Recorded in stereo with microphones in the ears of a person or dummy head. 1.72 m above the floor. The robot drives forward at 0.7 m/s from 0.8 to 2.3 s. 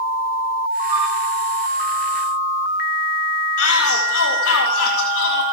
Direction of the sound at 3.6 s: 80° left.